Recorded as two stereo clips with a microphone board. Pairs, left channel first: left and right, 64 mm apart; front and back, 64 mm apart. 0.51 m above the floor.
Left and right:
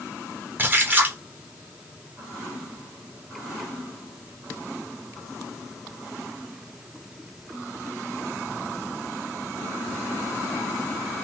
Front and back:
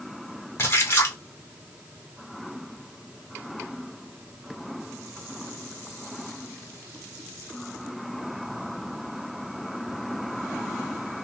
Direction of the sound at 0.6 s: 40° right.